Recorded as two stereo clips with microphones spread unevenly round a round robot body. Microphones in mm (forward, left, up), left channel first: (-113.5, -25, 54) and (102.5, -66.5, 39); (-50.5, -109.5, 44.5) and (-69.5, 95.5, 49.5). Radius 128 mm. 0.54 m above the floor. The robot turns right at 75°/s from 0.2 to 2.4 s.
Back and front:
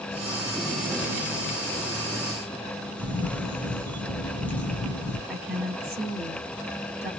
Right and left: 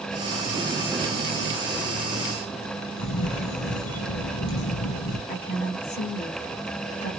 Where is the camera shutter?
110° right, 1.2 m.